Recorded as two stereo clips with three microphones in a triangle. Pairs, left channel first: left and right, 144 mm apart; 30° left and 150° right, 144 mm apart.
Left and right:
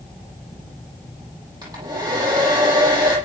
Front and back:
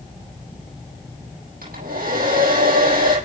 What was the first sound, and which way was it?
A hair dryer, 155° right.